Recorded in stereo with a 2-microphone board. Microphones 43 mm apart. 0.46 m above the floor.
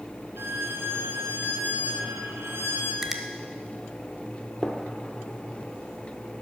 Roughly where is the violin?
Right.